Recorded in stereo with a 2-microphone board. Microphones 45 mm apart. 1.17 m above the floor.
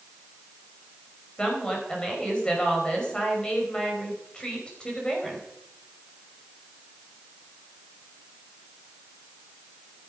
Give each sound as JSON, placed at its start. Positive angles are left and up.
{"t": 1.4, "sound": "a woman speaking", "side_deg": 20, "distance_m": 5.0}